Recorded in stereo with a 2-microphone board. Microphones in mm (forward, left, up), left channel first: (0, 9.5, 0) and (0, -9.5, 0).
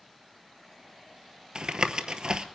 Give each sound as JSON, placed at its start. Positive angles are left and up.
{"t": 1.6, "sound": "tapping", "side_deg": -50, "distance_m": 0.9}